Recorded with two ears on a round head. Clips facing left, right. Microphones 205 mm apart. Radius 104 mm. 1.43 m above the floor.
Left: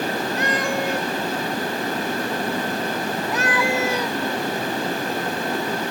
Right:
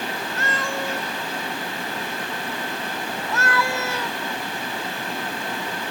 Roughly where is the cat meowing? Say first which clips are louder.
Left 3 dB; centre.